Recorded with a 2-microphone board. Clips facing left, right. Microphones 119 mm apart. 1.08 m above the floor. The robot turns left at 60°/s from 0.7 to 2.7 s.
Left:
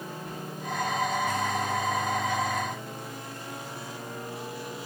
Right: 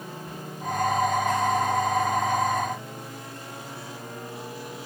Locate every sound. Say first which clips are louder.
0.2 s whispering: left 1 dB; 65° left (ahead or behind), 1.5 m